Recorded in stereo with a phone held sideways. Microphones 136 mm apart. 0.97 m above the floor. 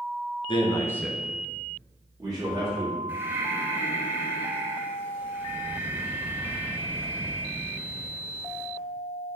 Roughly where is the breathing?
Centre.